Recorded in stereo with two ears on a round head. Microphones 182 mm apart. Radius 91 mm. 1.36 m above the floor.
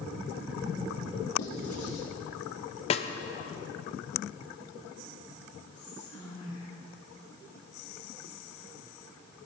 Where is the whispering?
80° left, 4.5 m.